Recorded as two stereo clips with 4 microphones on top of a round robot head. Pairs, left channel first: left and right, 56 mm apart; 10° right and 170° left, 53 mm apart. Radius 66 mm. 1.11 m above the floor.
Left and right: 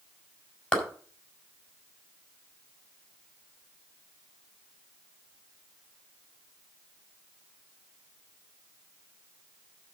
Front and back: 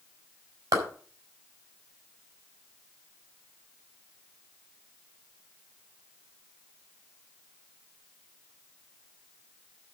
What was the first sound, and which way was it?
A clap, 165° left.